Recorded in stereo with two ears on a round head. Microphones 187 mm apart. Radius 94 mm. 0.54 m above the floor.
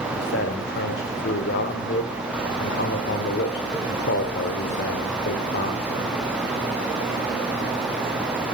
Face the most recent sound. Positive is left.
turn(degrees=55)  # may be behind; listen again after turning